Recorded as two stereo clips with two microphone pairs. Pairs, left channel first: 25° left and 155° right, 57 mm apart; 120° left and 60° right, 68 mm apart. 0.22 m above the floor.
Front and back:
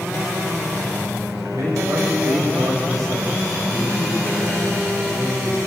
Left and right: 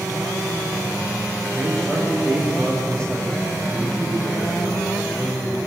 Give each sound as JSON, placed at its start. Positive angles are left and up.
{"t": 1.5, "sound": "a man speaking", "azimuth_deg": -165, "distance_m": 8.0}